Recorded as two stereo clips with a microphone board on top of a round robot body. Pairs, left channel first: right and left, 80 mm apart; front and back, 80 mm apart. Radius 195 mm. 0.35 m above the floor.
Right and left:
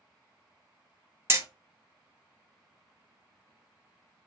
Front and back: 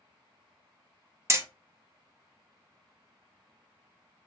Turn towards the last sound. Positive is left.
turn(degrees=140)